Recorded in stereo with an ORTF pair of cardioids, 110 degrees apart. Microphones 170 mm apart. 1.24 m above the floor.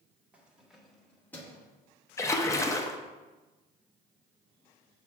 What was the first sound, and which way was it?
Keys jangling, 10° right.